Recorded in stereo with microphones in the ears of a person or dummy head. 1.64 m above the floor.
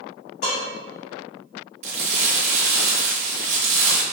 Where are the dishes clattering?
35° left (ahead or behind), 1.6 m.